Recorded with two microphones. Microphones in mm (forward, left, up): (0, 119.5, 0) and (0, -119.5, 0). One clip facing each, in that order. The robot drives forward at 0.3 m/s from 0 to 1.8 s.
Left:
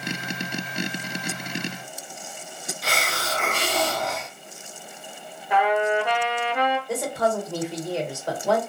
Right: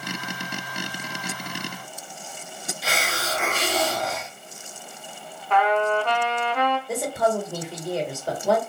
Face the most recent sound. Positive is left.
turn(degrees=-5)  # may be behind; listen again after turning